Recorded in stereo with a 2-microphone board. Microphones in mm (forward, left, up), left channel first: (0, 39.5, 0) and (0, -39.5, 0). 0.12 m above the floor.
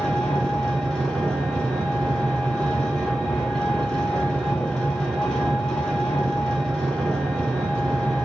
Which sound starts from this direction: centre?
An engine running, at 0.0 s.